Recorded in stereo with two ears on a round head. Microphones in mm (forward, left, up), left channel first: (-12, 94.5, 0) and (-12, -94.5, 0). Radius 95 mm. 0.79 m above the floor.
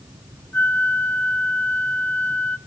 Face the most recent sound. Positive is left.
turn(degrees=10)  # may be behind; listen again after turning